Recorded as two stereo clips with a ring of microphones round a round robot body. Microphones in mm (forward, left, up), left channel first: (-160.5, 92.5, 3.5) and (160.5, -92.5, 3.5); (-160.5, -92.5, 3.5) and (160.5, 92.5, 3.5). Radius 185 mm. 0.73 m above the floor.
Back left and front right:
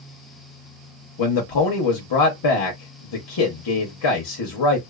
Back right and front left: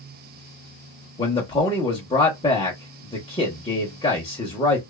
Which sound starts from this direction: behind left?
A man speaking, at 1.2 s.